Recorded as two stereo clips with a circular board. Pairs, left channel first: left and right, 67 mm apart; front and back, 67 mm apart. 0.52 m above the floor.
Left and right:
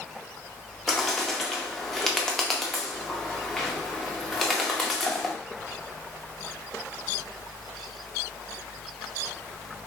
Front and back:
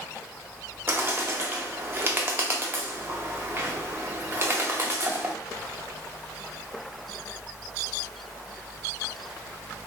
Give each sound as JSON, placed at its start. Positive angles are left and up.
{"t": 0.9, "sound": "a bird", "azimuth_deg": 170, "distance_m": 0.6}